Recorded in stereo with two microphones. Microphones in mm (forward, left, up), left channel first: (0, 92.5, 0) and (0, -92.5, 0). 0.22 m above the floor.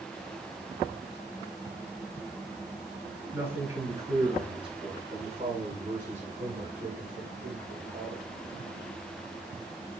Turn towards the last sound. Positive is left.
turn(degrees=-55)  # may be behind; listen again after turning